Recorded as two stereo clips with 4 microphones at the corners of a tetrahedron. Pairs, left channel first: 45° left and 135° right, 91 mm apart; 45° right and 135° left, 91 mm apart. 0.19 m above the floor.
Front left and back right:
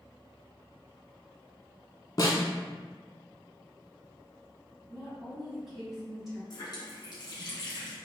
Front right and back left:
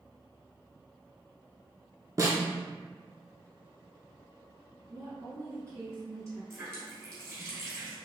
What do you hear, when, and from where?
2.2 s a snare drum: 90° left, 0.6 m
4.9 s a woman speaking: 140° left, 1.8 m
6.5 s a running tap: 80° left, 1.5 m